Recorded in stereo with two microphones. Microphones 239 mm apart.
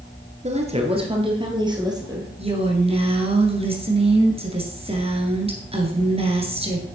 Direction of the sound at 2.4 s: 25° right (ahead or behind).